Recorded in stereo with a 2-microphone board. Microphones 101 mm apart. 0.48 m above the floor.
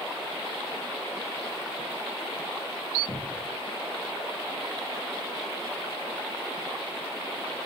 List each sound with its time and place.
3.1 s a cupboard door: 50° left (ahead or behind), 4 m